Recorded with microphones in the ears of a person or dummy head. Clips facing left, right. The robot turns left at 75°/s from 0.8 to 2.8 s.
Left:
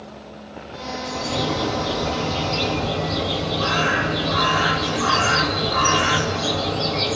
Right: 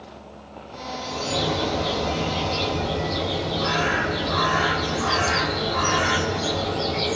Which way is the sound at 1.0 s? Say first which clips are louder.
Left 1 dB; 45° right.